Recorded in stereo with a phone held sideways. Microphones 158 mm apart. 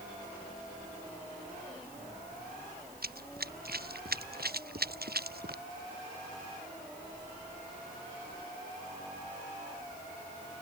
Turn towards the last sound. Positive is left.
turn(degrees=-80)